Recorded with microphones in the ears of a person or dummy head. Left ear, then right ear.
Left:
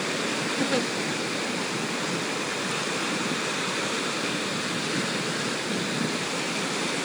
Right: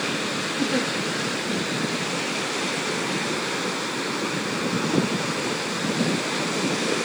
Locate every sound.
0.6 s a giggle: 40° left (ahead or behind), 0.6 m